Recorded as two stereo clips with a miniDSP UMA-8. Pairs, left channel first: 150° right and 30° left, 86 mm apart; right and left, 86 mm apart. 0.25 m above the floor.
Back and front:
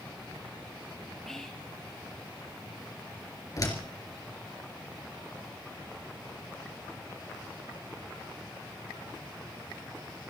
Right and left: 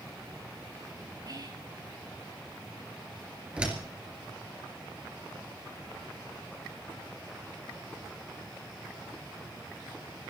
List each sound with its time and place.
1.3 s whispering: 125° left, 5 m
3.6 s a door slam: 165° left, 3.5 m